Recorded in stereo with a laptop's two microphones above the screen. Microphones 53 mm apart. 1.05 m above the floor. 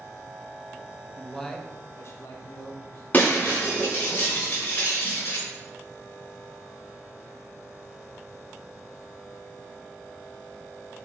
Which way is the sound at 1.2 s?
5° right (ahead or behind).